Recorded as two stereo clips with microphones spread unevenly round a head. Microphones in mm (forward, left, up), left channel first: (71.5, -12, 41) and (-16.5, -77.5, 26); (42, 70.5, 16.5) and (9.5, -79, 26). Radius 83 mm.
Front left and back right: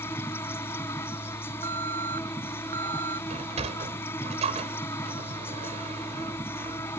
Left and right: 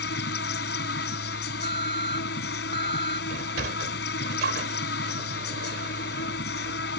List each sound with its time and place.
0.0 s an insect: 115° left
1.6 s an alarm: 165° right
3.3 s a sliding door: 115° right